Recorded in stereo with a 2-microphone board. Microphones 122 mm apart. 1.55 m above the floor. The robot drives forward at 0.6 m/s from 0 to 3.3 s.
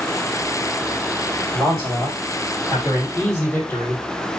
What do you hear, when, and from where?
1.5 s a man speaking: 35° left (ahead or behind), 1.8 m; by 4.3 s 20° left (ahead or behind), 3 m